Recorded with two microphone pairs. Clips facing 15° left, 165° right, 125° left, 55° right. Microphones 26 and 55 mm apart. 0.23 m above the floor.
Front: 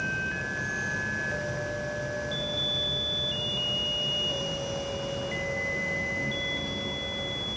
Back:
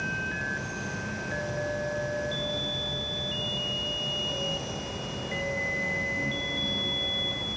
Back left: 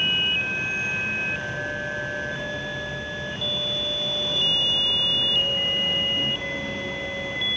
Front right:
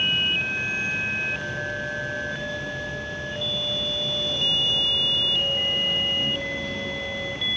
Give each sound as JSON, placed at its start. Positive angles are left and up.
{"t": 0.0, "sound": "an insect", "azimuth_deg": 145, "distance_m": 2.0}